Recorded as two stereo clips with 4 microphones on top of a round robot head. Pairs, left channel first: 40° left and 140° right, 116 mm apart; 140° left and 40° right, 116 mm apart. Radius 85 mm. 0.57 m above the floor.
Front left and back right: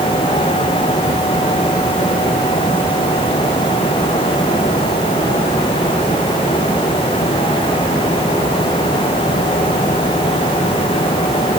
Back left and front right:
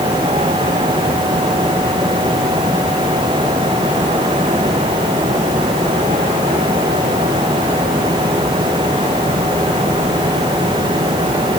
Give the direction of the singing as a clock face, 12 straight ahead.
No singing in this recording.